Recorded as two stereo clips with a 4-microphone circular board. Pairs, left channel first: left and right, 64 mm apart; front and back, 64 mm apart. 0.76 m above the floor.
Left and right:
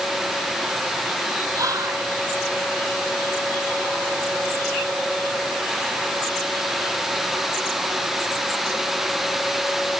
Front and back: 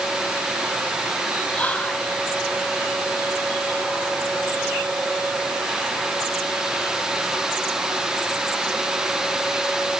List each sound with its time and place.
1.5 s whispering: 70° right, 2.5 m